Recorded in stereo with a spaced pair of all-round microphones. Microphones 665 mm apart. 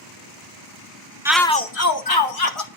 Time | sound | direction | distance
1.2 | a shout | 5° right (ahead or behind) | 0.7 m